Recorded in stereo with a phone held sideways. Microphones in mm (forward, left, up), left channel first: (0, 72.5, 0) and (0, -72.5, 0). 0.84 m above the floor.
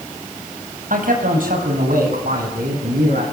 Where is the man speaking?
70° right (ahead or behind), 5 m; by 3.2 s 85° right, 7.5 m.